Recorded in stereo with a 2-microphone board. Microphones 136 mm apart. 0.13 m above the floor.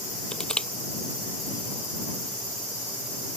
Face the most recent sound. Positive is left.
turn(degrees=5)  # may be behind; listen again after turning